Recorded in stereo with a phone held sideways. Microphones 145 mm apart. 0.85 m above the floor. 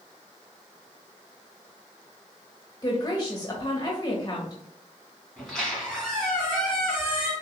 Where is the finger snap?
No finger snap in this recording.